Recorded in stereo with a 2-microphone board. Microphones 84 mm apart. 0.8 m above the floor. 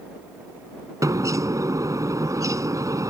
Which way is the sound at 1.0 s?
45° right (ahead or behind).